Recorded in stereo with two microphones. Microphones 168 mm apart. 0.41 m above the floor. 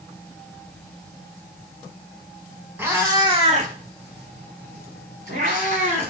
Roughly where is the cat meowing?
Centre.